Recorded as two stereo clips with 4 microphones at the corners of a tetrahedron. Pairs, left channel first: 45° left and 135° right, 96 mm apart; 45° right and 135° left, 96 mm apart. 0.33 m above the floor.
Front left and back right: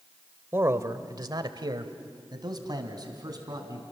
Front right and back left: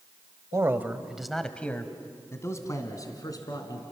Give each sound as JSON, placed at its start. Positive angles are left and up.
{"t": 0.5, "sound": "a man speaking", "azimuth_deg": 175, "distance_m": 1.2}